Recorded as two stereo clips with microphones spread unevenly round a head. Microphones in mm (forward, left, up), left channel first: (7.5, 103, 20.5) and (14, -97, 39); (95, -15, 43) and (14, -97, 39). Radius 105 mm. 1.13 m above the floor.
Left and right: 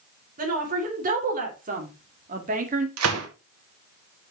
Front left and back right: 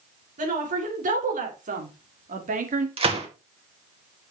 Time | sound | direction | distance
0.4 | a woman speaking | 140° right | 3.5 m
3.0 | a gunshot | 100° right | 2 m